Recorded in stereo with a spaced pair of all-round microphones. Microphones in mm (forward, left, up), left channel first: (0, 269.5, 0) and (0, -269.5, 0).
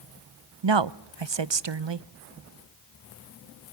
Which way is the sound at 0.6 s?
55° right (ahead or behind).